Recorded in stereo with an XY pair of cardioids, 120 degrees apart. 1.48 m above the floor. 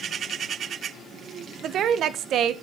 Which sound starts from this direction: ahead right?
A woman speaking, at 1.6 s.